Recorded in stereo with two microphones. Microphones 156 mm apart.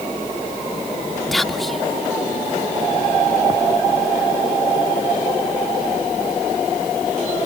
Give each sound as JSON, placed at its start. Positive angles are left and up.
{"t": 1.3, "sound": "whispering", "side_deg": 0}